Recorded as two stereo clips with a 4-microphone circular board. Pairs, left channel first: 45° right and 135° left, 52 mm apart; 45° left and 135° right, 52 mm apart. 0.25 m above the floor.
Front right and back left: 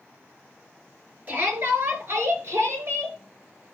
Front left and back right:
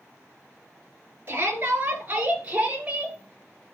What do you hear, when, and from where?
1.3 s a shout: 175° right, 4.5 m; by 3.2 s 160° left, 4.5 m